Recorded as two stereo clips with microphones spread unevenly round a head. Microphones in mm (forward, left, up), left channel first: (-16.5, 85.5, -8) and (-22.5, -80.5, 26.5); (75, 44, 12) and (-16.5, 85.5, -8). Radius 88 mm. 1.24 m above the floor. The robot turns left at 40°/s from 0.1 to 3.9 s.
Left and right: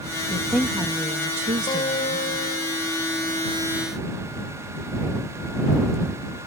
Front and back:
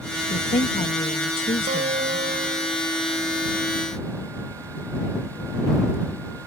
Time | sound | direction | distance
0.3 | a woman speaking | 10° left | ?
1.7 | a guitar | 155° left | ?